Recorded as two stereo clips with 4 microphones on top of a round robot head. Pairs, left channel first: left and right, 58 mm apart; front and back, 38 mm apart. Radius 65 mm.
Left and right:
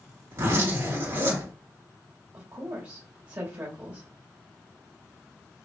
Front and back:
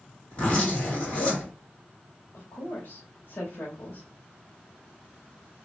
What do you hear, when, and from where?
0.3 s a zipper: 55° right, 3 m
2.3 s a woman speaking: 35° right, 1.9 m